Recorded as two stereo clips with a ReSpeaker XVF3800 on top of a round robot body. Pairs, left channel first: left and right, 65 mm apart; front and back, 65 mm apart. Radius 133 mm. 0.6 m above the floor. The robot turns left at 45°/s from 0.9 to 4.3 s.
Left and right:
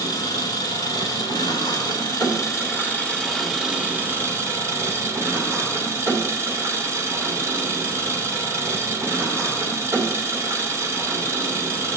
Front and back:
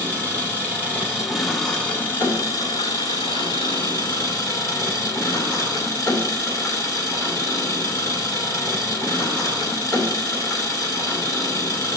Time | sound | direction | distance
0.0 | an engine running | 115° left | 2.5 m